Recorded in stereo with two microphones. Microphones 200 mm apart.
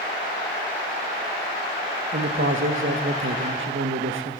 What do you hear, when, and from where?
2.1 s a man speaking: 85° right, 0.9 m